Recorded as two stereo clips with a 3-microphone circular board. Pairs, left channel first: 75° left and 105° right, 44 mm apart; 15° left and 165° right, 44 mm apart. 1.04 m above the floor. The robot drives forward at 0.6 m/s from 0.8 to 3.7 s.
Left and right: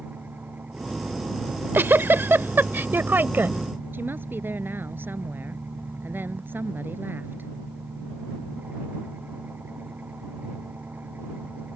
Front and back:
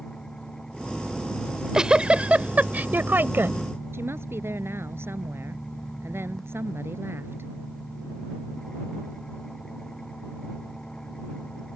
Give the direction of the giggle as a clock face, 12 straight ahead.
3 o'clock.